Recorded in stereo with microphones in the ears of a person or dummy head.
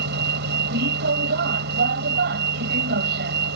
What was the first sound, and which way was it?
A vehicle, 60° right (ahead or behind).